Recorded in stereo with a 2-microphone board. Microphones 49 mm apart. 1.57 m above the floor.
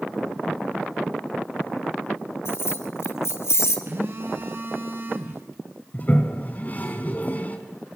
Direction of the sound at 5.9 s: 35° left (ahead or behind).